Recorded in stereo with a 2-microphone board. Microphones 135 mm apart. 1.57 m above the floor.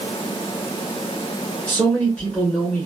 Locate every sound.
1.7 s a man speaking: 10° left (ahead or behind), 1.5 m